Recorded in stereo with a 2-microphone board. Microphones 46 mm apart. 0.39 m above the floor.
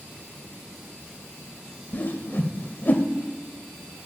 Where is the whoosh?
40° left (ahead or behind), 0.6 m.